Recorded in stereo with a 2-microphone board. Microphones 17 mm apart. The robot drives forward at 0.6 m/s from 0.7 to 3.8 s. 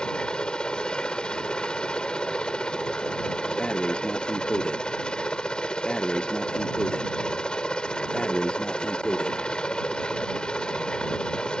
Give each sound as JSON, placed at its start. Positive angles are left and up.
{"t": 0.0, "sound": "a helicopter", "side_deg": 65}
{"t": 3.6, "sound": "breathing", "side_deg": 80}